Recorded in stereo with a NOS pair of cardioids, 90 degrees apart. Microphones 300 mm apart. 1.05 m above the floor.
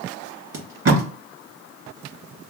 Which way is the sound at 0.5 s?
50° right.